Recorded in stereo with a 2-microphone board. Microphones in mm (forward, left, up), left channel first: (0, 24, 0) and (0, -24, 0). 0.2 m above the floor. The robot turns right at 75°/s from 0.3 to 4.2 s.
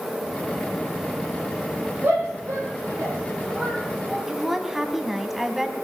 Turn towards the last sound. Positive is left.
turn(degrees=-5)  # may be behind; listen again after turning